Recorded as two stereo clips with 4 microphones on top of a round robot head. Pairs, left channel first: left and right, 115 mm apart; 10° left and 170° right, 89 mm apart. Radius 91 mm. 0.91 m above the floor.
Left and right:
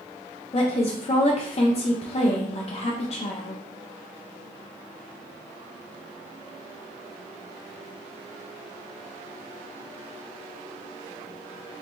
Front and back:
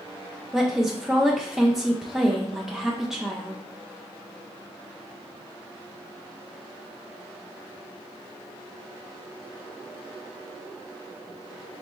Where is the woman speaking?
105° left, 0.5 m.